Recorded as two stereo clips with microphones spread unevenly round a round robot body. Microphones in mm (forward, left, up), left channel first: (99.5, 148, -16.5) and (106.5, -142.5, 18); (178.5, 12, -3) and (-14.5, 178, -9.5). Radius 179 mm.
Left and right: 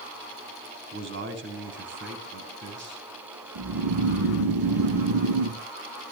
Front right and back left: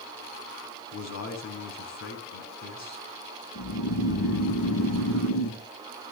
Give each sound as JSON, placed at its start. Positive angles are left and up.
{"t": 0.9, "sound": "a man speaking", "azimuth_deg": -40, "distance_m": 5.5}
{"t": 3.5, "sound": "snoring", "azimuth_deg": -75, "distance_m": 4.5}